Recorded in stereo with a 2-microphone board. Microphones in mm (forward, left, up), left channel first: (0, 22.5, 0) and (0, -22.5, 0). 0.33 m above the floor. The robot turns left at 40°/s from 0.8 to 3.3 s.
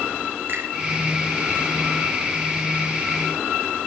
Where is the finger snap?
45° right (ahead or behind), 5 m.